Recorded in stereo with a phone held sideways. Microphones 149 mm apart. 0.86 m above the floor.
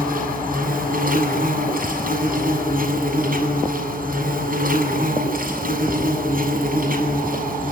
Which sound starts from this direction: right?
An insect, at 0.0 s.